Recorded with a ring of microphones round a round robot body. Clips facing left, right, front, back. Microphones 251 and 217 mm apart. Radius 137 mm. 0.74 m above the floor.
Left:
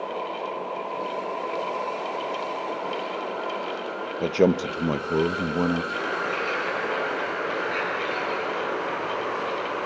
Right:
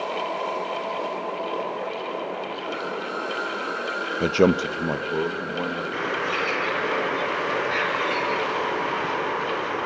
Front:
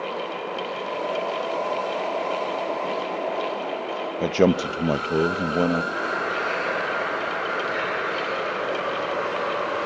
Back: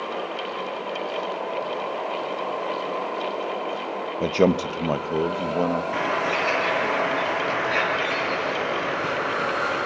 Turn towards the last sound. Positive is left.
turn(degrees=-160)